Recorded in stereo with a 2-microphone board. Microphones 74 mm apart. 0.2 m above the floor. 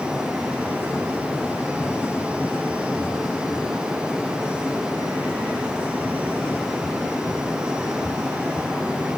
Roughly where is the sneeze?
I don't hear a sneeze.